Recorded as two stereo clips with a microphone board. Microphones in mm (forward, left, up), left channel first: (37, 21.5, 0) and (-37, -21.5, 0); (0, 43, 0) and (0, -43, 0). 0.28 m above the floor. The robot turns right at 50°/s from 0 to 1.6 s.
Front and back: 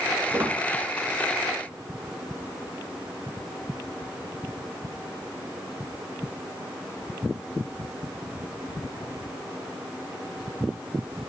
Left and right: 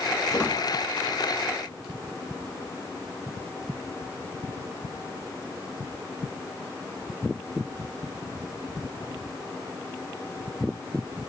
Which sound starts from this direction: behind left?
A squeak, at 0.3 s.